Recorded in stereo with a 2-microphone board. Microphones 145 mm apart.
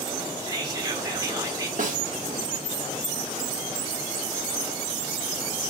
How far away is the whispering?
About 1.8 m.